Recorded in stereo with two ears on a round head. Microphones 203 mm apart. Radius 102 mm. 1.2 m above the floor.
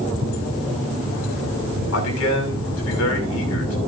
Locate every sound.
1.9 s a man speaking: 80° left, 6.5 m